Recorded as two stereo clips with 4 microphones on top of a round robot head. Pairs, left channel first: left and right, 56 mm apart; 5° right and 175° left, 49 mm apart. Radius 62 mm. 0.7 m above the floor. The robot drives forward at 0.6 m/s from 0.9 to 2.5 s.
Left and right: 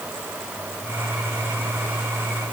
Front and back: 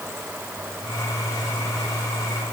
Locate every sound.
Only background noise.